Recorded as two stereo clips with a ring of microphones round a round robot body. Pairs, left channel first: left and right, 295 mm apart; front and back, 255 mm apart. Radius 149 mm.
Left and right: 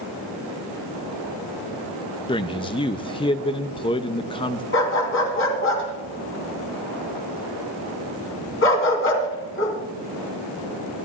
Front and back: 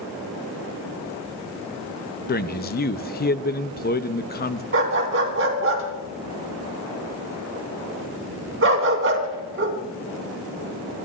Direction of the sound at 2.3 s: 25° left.